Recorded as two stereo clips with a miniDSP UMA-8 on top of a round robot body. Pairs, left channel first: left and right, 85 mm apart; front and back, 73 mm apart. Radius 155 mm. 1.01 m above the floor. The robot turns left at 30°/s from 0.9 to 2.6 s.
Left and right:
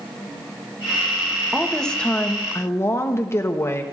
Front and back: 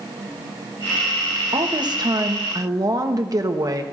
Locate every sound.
1.5 s a woman speaking: straight behind, 1.1 m; by 3.8 s 145° left, 1.1 m